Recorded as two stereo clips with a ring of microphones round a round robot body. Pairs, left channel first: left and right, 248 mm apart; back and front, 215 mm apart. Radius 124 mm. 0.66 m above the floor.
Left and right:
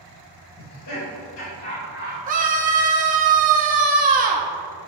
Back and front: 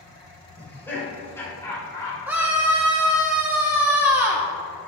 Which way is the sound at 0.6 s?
100° left.